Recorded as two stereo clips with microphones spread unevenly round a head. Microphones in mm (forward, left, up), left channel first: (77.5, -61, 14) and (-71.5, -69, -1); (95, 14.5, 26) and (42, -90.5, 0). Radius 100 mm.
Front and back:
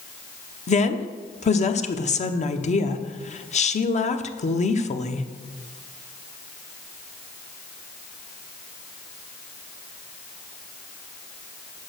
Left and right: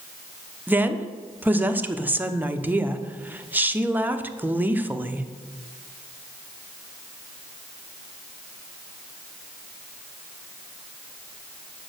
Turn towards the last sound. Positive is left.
turn(degrees=-40)